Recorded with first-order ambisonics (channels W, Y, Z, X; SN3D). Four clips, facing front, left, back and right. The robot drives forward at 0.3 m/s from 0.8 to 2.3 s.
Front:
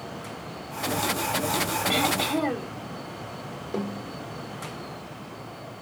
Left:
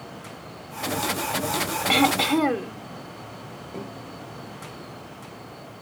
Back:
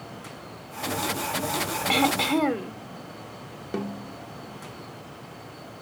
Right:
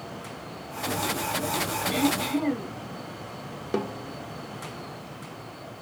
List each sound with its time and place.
1.9 s throat clearing: 115° left, 1.0 m; by 2.7 s 125° left, 1.1 m
3.7 s a snare drum: 110° right, 1.2 m